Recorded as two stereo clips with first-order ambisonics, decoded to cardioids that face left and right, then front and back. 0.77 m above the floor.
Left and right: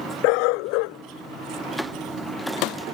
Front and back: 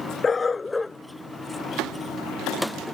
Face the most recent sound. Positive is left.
turn(degrees=135)